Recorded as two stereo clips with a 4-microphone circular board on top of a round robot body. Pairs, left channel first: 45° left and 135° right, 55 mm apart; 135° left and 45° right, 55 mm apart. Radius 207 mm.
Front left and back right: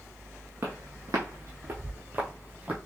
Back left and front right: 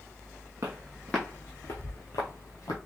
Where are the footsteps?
85° right, 0.6 m; by 2.8 s 155° left, 1.8 m.